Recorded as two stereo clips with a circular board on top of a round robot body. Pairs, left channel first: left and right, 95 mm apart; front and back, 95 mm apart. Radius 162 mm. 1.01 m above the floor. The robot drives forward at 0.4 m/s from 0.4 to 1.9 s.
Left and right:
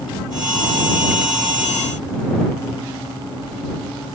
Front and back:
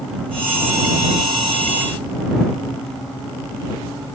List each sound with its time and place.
Only background noise.